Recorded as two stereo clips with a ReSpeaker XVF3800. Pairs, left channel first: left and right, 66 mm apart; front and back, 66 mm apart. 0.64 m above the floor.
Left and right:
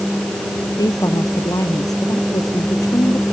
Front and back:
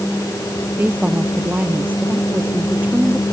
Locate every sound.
0.8 s a woman speaking: 115° left